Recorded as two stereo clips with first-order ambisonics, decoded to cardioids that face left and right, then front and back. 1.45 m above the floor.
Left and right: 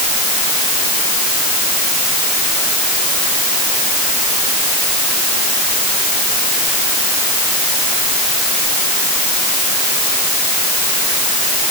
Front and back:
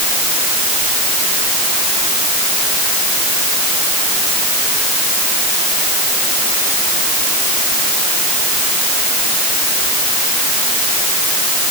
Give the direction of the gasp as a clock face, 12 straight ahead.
No gasp in this recording.